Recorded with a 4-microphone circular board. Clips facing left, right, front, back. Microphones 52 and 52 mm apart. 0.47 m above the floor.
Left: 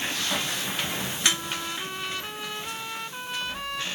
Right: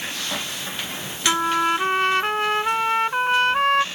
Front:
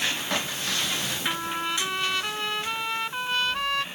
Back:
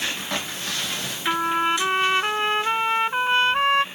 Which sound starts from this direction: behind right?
A trumpet, at 1.3 s.